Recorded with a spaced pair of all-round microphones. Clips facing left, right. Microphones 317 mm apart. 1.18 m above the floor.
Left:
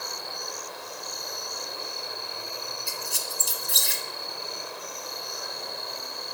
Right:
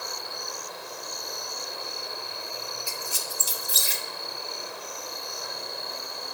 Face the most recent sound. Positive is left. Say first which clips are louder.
# even
turn(degrees=-5)  # may be behind; listen again after turning